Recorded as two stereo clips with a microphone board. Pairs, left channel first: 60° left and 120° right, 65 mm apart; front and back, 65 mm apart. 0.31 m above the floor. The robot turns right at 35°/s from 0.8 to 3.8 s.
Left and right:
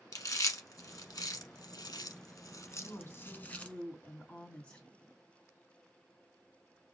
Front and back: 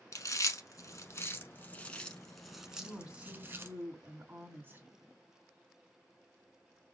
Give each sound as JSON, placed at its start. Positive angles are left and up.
{"t": 0.1, "sound": "chewing", "azimuth_deg": 35, "distance_m": 0.8}
{"t": 2.8, "sound": "a woman speaking", "azimuth_deg": 95, "distance_m": 2.5}